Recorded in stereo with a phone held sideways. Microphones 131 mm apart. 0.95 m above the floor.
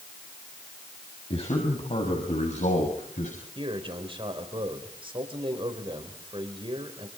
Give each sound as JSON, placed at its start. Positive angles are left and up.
{"t": 1.3, "sound": "a man speaking", "side_deg": 50, "distance_m": 6.0}
{"t": 3.5, "sound": "a man speaking", "side_deg": -40, "distance_m": 4.5}